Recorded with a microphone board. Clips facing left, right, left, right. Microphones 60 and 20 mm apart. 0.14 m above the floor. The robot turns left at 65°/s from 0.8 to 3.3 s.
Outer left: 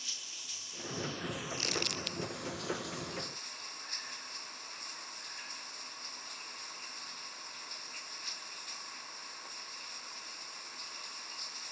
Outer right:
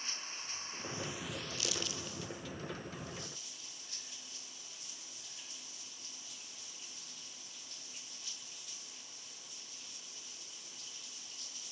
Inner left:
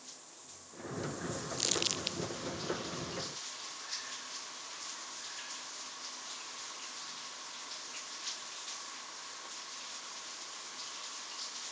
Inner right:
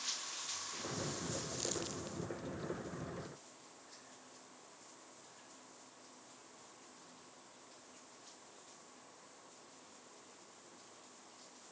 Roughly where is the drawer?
No drawer in this recording.